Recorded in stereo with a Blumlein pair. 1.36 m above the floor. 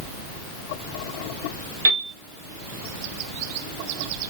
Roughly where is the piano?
Ahead right.